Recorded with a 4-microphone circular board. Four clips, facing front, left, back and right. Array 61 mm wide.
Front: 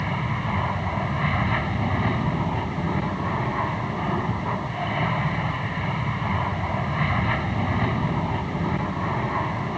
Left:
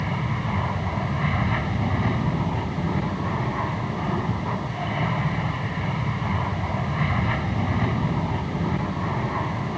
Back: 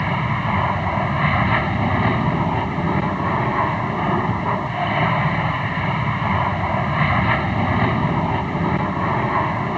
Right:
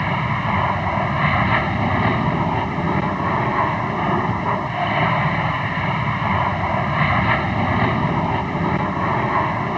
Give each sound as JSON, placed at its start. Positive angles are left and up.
{"t": 0.0, "sound": "an aircraft", "azimuth_deg": -125}